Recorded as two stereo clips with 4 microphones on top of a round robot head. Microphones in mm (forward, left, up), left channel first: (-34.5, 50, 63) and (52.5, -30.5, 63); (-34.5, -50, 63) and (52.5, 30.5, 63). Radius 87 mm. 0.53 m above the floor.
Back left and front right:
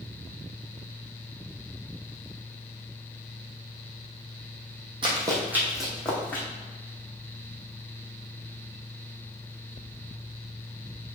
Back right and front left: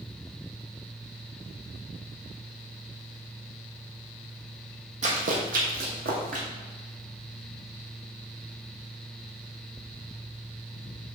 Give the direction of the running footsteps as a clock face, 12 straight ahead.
12 o'clock.